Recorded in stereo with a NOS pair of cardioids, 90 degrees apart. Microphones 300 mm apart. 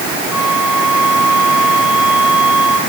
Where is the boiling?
I don't hear boiling.